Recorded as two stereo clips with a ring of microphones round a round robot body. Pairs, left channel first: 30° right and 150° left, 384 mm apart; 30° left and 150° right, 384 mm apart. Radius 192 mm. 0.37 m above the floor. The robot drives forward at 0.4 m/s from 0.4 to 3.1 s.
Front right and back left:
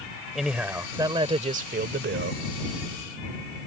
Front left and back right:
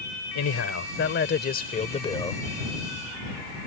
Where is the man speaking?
60° left; by 2.4 s 110° left.